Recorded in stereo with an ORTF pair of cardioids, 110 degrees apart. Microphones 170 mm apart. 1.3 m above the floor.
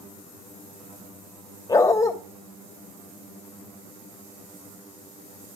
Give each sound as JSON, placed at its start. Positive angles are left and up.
{"t": 1.7, "sound": "a dog barking", "azimuth_deg": 20, "distance_m": 3.0}